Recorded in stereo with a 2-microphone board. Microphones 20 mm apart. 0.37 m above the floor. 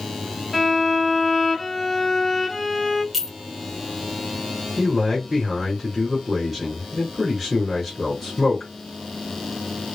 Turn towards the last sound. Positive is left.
turn(degrees=-15)  # may be behind; listen again after turning